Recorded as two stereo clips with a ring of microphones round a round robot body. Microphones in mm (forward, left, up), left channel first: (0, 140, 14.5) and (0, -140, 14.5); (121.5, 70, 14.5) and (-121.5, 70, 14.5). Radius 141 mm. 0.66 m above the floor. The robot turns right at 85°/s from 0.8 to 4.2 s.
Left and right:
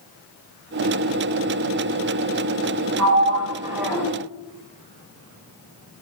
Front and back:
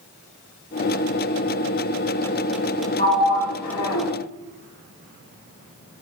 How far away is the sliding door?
About 1.0 m.